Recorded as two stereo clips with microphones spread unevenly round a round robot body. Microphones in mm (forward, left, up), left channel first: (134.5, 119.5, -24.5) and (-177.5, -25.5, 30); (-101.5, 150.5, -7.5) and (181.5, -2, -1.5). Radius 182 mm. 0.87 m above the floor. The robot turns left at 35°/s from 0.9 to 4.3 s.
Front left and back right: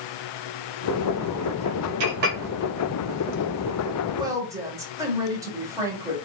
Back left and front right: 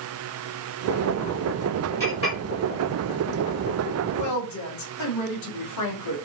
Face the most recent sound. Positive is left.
turn(degrees=120)